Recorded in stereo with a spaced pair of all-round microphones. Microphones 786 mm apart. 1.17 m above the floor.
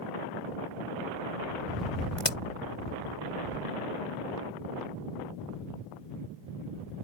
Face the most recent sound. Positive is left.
turn(degrees=40)  # may be behind; listen again after turning